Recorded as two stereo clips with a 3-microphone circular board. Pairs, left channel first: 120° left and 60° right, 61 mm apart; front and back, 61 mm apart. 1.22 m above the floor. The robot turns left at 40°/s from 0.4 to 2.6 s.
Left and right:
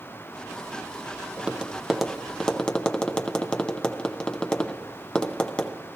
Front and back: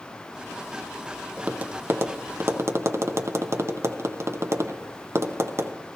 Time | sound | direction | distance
1.4 | tapping | 125° right | 0.5 m